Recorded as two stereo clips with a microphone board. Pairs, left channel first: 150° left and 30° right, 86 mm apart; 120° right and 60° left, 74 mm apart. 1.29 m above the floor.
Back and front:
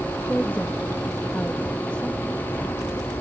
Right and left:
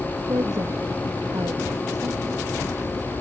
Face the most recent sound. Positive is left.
turn(degrees=75)